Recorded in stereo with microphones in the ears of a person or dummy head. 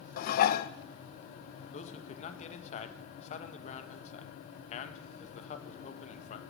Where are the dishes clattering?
50° left (ahead or behind), 0.7 m.